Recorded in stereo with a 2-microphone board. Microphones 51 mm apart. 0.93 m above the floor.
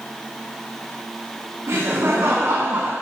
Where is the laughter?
65° right (ahead or behind), 2.5 m; by 2.9 s 60° right (ahead or behind), 1.4 m.